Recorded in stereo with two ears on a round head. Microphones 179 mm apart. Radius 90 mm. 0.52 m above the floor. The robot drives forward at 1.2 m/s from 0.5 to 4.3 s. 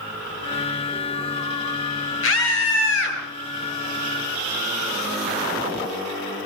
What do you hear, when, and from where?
2.2 s a scream: 75° left (ahead or behind), 8 m; by 3.2 s 70° left (ahead or behind), 8.5 m